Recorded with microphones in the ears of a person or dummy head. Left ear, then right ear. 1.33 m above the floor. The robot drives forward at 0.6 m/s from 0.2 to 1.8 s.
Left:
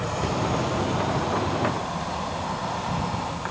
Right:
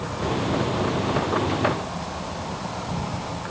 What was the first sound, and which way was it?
An insect, 50° left (ahead or behind).